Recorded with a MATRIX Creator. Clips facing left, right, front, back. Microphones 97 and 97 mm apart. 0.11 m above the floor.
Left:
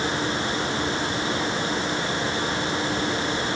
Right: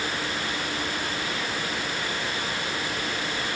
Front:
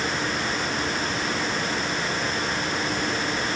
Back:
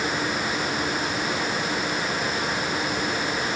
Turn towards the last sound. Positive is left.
No sound to turn to.